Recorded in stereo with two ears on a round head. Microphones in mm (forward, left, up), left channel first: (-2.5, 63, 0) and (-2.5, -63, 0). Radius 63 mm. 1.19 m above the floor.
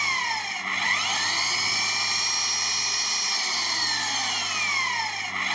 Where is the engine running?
Centre (ahead or behind).